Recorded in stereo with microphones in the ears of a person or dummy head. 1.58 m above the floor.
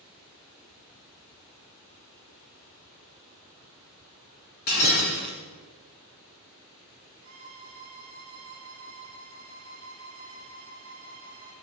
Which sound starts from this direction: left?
Breaking glass, at 4.7 s.